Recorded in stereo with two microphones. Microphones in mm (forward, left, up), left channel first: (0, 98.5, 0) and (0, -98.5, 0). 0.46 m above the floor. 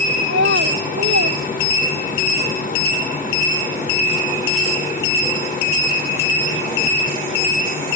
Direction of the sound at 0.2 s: 75° right (ahead or behind).